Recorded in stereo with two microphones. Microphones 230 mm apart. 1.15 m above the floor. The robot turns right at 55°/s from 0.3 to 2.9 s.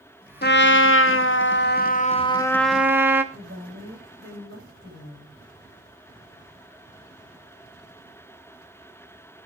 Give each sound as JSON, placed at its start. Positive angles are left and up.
{"t": 0.4, "sound": "a trumpet", "azimuth_deg": 55, "distance_m": 1.0}
{"t": 3.3, "sound": "a woman speaking", "side_deg": -60, "distance_m": 7.5}